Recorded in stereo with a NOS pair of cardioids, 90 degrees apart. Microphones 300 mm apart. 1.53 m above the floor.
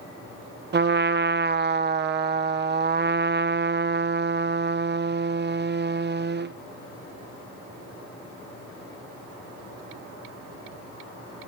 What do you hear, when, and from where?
0.7 s a trumpet: 35° right, 0.9 m